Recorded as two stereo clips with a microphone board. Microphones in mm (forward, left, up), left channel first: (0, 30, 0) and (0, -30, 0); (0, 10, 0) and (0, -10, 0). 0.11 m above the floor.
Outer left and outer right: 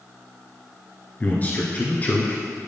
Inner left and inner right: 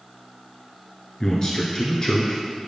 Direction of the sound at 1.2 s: 30° left (ahead or behind).